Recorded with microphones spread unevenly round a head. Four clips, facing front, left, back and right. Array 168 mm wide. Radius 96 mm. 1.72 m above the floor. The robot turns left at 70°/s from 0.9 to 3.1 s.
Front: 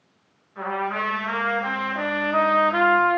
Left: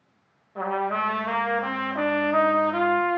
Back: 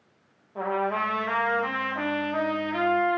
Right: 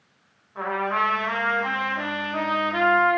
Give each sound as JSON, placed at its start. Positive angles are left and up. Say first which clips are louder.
{"t": 0.6, "sound": "a trumpet", "louder": "right 1 dB, even", "azimuth_deg": 145, "distance_m": 0.7}